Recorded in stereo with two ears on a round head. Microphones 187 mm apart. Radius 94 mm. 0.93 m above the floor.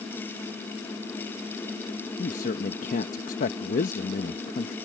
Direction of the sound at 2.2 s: 40° left (ahead or behind).